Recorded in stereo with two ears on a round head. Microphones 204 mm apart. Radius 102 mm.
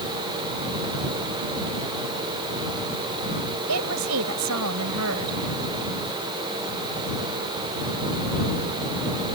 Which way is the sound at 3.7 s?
80° right.